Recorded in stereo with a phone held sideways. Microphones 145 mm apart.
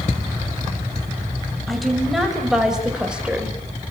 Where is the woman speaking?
Centre (ahead or behind), 6 m; by 3.6 s 10° right (ahead or behind), 4.5 m.